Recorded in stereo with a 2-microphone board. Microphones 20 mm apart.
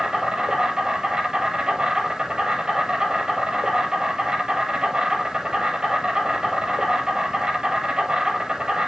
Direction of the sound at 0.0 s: 50° right (ahead or behind).